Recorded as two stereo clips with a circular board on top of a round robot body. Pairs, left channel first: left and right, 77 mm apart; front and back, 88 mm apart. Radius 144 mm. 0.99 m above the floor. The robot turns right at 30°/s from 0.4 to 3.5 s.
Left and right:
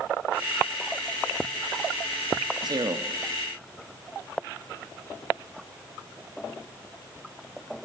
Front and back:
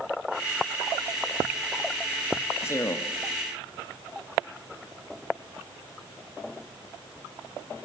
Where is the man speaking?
65° right, 1.9 m; by 3.1 s 50° right, 1.9 m.